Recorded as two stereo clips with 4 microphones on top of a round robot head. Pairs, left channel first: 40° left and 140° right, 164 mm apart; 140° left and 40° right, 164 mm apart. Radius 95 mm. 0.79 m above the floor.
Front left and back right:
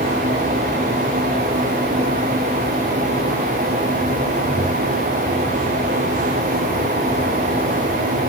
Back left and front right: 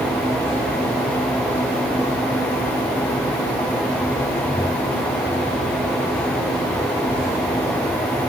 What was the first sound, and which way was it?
Only background noise.